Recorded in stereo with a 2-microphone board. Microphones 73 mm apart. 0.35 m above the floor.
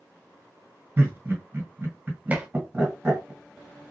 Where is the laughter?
30° right (ahead or behind), 2 m.